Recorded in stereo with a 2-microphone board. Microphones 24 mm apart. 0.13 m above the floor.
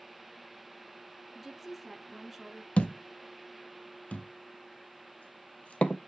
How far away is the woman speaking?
About 1.3 m.